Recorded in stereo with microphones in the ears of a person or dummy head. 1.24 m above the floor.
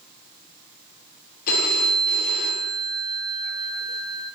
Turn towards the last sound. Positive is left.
turn(degrees=50)  # may be behind; listen again after turning